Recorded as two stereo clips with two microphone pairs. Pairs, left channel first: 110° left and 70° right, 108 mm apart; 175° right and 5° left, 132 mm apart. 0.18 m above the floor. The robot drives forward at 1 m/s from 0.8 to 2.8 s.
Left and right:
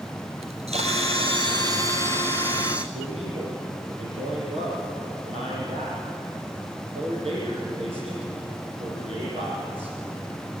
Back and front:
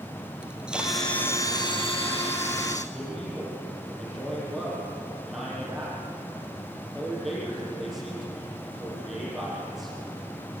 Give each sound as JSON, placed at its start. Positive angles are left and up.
{"t": 0.4, "sound": "a camera shutter", "azimuth_deg": -75, "distance_m": 1.1}
{"t": 2.9, "sound": "a man speaking", "azimuth_deg": -85, "distance_m": 6.5}